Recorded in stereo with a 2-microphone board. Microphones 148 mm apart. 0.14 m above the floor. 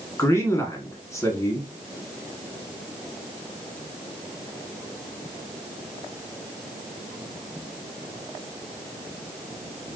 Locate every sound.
0.2 s a man speaking: 20° left (ahead or behind), 1.4 m